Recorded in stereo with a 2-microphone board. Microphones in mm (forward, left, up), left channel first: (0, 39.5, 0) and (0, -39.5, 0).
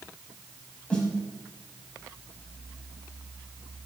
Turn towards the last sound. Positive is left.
turn(degrees=15)  # may be behind; listen again after turning